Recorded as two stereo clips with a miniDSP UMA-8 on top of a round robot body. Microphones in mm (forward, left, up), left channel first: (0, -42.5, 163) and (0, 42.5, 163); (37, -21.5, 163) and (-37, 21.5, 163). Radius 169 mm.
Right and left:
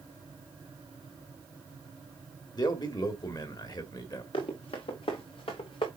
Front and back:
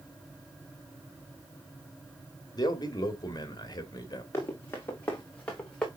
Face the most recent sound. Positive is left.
turn(degrees=-110)